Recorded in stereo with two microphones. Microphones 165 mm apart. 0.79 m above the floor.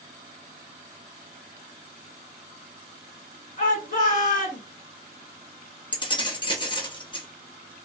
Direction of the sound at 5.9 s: 30° left (ahead or behind).